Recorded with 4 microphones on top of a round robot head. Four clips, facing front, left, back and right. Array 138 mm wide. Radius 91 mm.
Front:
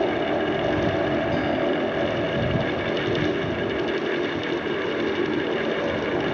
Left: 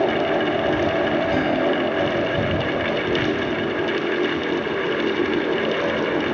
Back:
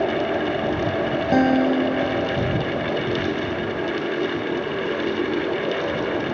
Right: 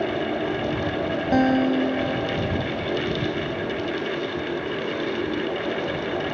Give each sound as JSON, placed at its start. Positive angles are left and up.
{"t": 1.3, "sound": "a guitar", "azimuth_deg": -145}